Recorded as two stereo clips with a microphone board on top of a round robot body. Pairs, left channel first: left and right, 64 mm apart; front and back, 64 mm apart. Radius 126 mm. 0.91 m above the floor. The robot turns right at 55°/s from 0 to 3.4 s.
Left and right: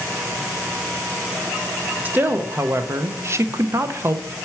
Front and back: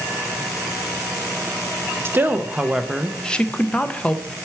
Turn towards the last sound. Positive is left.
turn(degrees=-70)